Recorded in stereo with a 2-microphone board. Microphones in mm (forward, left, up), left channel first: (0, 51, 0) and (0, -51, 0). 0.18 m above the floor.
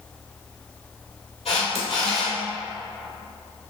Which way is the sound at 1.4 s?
80° left.